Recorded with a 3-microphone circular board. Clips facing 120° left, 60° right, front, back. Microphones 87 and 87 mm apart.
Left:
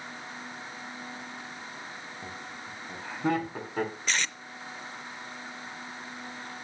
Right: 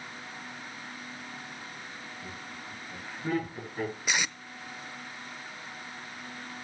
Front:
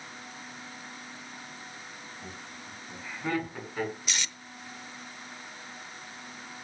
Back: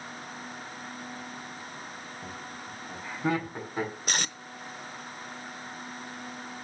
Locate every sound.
2.2 s laughter: 105° left, 4.5 m; by 3.9 s 110° left, 7 m
4.1 s tape being pulled: 140° right, 0.6 m